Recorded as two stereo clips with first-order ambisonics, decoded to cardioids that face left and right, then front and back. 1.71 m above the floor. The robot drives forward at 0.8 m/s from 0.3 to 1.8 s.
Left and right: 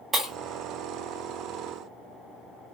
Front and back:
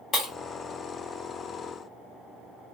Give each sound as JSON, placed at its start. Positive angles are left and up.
{"t": 0.1, "sound": "breaking glass", "azimuth_deg": -25, "distance_m": 1.1}